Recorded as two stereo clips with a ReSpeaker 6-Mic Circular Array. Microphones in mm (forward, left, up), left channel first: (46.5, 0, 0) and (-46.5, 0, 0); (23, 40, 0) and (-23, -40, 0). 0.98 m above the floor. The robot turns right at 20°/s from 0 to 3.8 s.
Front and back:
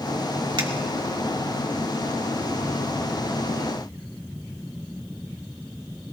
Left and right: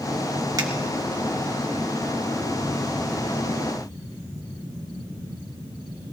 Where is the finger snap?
160° right, 1.5 m.